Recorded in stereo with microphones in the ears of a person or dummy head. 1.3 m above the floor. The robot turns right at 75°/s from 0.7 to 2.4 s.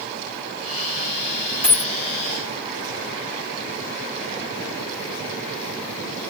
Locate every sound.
1.6 s a dropped coin: 5° left (ahead or behind), 0.7 m; by 1.9 s 15° left (ahead or behind), 0.7 m